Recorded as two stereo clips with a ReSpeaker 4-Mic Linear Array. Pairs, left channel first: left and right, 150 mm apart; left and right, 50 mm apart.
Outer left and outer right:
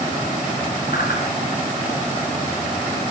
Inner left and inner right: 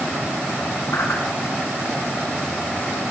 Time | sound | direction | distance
0.9 | a whoosh | 85° left | 8 m